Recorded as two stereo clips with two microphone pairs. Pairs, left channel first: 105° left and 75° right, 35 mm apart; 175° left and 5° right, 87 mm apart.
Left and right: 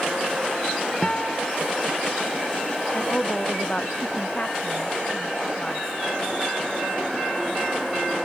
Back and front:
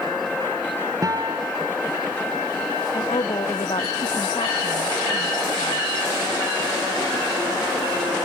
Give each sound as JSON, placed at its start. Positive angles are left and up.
{"t": 1.0, "sound": "a guitar", "azimuth_deg": 40}
{"t": 2.9, "sound": "a woman speaking", "azimuth_deg": 160}